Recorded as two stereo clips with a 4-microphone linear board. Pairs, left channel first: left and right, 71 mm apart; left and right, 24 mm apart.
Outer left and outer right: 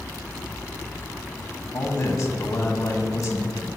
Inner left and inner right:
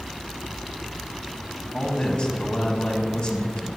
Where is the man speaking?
45° left (ahead or behind), 1.7 m.